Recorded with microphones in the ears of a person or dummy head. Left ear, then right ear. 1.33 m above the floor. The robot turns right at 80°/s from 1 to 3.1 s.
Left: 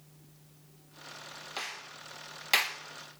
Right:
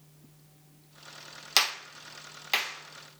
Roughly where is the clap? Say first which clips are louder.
Right 14 dB; right.